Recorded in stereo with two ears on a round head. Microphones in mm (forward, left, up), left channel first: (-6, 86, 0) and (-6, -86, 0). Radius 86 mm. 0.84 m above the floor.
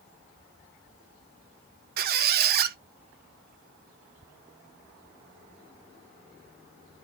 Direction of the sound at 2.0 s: 45° right (ahead or behind).